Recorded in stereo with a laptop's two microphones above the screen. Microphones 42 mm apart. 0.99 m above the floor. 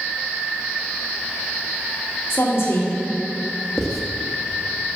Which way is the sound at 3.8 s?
10° left (ahead or behind).